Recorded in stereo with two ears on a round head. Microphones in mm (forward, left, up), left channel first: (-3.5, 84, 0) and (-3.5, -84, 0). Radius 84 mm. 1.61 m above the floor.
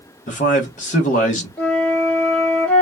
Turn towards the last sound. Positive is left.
turn(degrees=5)  # may be behind; listen again after turning